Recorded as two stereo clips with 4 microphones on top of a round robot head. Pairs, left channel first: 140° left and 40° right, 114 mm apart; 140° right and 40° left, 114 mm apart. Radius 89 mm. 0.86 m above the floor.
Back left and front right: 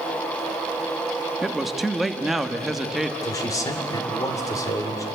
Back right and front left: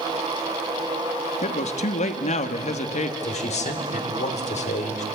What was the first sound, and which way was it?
A man speaking, 130° right.